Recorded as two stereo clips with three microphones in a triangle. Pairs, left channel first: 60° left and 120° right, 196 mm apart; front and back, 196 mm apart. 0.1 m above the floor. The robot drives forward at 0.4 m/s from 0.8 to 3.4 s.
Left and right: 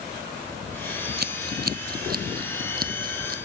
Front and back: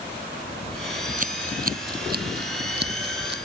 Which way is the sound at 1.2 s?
140° right.